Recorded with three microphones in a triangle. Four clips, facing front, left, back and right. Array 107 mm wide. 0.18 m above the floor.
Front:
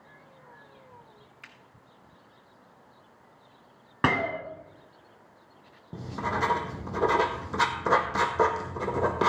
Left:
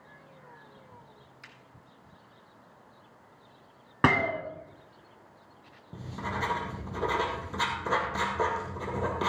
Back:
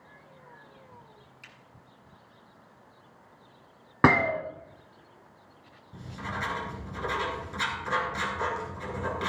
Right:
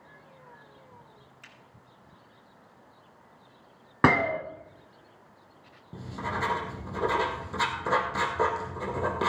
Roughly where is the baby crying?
I don't hear a baby crying.